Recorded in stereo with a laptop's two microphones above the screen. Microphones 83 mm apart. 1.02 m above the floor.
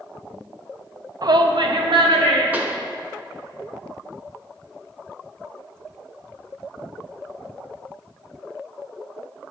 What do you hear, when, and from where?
1.2 s a shout: 50° right (ahead or behind), 0.6 m; by 2.4 s 70° right (ahead or behind), 1.9 m
2.5 s a pop: 20° right (ahead or behind), 1.1 m